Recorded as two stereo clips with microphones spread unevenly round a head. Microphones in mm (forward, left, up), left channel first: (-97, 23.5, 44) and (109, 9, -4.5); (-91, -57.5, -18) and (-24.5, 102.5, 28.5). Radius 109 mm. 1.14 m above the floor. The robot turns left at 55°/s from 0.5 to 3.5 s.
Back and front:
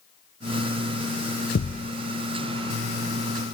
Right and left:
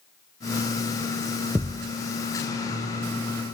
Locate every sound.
1.6 s a thud: 145° left; by 1.9 s 125° left